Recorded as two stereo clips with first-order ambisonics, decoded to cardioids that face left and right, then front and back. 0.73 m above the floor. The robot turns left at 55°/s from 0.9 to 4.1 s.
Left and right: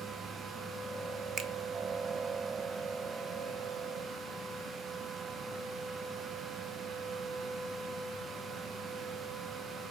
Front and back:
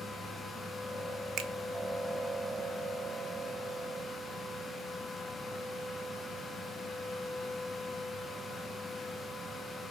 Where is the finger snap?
145° right, 0.7 m; by 1.5 s 150° right, 0.7 m.